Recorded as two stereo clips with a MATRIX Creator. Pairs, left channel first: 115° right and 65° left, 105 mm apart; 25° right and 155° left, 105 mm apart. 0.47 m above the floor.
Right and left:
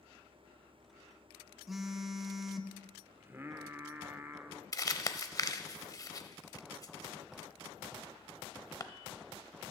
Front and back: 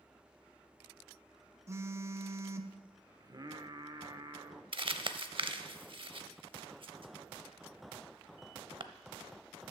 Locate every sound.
1.7 s a phone buzzing: 155° left, 0.5 m
3.2 s singing: 125° left, 0.6 m
4.7 s crumpling: 170° right, 0.5 m